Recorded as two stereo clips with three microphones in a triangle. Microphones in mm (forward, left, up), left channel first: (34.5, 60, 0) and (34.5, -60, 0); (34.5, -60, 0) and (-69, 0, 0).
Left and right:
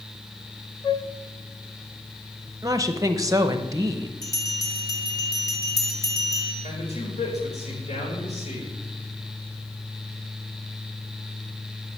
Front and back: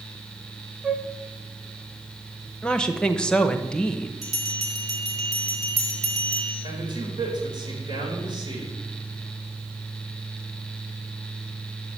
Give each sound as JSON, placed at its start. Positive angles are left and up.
{"t": 0.8, "sound": "a flute", "azimuth_deg": 70, "distance_m": 0.6}
{"t": 2.6, "sound": "a woman speaking", "azimuth_deg": -105, "distance_m": 0.9}
{"t": 4.2, "sound": "a bell", "azimuth_deg": 145, "distance_m": 1.5}
{"t": 6.6, "sound": "a man speaking", "azimuth_deg": 100, "distance_m": 4.5}